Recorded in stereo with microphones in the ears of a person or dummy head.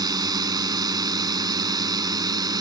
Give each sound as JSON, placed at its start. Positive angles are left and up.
{"t": 0.0, "sound": "a drone", "side_deg": -25}